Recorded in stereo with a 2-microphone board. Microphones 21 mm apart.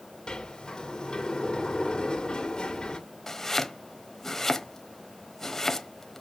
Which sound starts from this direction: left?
A sliding door, at 0.3 s.